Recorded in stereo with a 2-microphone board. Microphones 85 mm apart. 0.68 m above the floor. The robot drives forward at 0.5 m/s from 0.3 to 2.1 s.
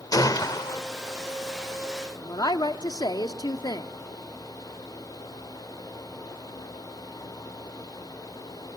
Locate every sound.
0.1 s a gunshot: 50° left (ahead or behind), 1.2 m; by 0.8 s 65° left (ahead or behind), 1.1 m
2.2 s a woman speaking: 55° left (ahead or behind), 1.2 m